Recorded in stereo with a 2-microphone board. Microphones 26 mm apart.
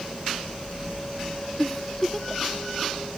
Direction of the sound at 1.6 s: 5° left (ahead or behind).